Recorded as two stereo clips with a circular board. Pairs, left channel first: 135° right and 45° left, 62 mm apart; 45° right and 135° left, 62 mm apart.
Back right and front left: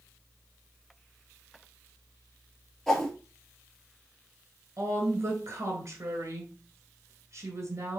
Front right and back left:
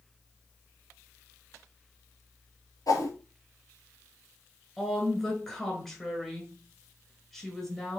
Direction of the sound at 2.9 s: 45° right.